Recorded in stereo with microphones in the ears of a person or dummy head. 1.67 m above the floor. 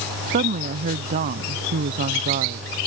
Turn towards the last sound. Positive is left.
turn(degrees=-45)  # may be behind; listen again after turning